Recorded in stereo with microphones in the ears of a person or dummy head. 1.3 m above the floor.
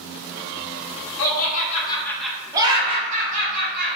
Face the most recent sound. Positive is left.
turn(degrees=-50)  # may be behind; listen again after turning